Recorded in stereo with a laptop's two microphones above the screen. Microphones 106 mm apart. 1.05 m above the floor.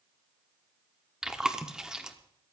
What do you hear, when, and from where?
1.2 s chewing: 5° right (ahead or behind), 1.0 m